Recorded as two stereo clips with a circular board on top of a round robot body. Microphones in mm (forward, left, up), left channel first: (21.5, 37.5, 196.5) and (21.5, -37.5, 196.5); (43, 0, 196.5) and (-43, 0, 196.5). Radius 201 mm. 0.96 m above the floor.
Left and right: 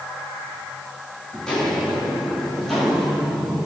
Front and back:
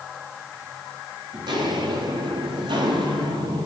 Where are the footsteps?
170° left, 5.5 m; by 3.7 s 175° left, 7 m.